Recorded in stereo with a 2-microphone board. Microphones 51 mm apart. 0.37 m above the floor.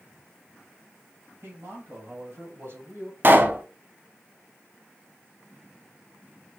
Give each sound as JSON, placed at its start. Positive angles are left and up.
{"t": 1.4, "sound": "a man speaking", "side_deg": -55, "distance_m": 3.0}
{"t": 3.2, "sound": "a pop", "side_deg": -40, "distance_m": 0.7}